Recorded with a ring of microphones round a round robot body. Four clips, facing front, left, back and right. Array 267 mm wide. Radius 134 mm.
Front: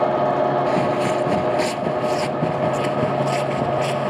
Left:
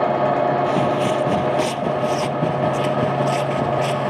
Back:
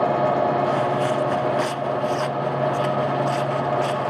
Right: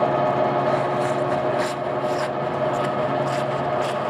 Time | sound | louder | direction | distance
0.7 | footsteps | left 2 dB, front 2 dB | 55° left | ?